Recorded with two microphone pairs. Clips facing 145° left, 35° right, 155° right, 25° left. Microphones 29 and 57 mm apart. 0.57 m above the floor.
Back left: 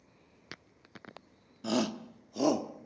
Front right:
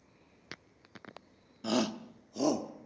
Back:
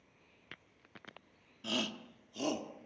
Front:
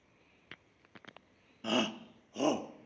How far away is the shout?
About 0.8 m.